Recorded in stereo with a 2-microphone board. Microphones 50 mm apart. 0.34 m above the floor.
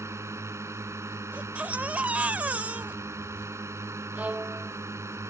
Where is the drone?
70° right (ahead or behind).